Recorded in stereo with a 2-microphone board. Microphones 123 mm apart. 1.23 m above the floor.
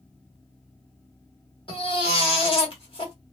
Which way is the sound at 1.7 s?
45° left (ahead or behind).